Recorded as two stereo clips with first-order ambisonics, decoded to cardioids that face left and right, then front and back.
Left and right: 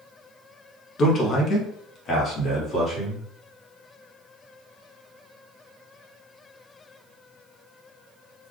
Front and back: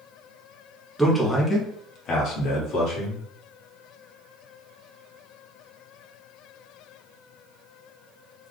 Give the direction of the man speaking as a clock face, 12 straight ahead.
9 o'clock.